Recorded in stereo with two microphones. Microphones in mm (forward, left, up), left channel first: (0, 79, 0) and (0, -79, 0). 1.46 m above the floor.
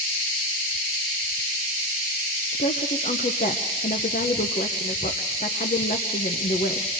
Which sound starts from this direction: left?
A woman speaking, at 2.5 s.